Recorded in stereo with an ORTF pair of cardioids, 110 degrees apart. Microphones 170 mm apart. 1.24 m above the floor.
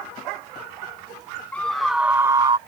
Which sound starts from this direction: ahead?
A scream, at 1.5 s.